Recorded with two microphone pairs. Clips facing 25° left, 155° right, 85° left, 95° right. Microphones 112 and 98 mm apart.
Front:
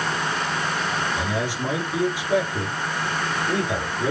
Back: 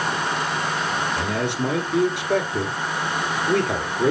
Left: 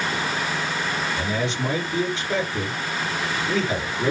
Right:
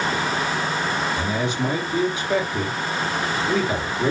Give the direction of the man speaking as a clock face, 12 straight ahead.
6 o'clock.